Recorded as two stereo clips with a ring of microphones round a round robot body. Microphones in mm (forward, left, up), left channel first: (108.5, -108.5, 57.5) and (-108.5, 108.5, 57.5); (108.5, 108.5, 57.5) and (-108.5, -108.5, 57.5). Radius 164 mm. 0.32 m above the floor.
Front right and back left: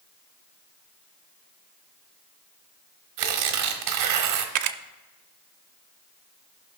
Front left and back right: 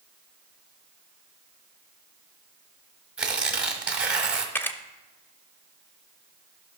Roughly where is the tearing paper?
Behind left.